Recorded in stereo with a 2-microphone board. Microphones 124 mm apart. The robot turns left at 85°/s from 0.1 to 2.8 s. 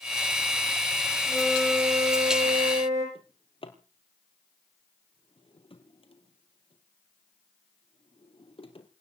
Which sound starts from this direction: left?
A drawer, at 3.1 s.